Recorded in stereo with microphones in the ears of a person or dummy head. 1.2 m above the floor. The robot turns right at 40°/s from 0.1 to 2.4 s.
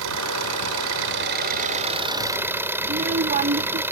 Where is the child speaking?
45° right (ahead or behind).